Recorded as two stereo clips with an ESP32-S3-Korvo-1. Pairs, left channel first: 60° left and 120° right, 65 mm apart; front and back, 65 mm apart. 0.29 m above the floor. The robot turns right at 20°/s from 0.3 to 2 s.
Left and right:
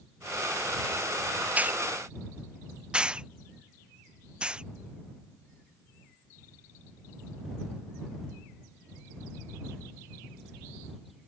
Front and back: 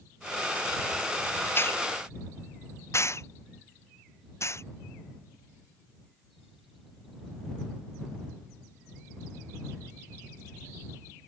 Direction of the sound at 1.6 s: 55° right.